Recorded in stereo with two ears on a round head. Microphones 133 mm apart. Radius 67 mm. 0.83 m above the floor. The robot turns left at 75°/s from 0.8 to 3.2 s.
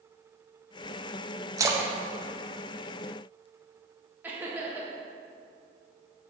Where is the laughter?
10° right (ahead or behind), 1.0 m.